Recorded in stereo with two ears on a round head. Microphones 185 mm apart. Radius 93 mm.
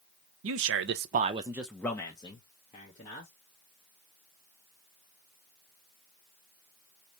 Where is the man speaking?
70° right (ahead or behind), 0.7 m; by 3.3 s 35° left (ahead or behind), 1.4 m.